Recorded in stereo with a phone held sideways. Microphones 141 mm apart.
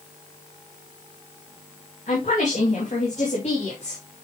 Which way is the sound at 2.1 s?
65° left (ahead or behind).